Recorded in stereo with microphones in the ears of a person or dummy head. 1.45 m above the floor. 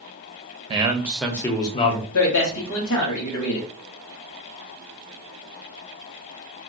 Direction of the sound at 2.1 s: 80° left.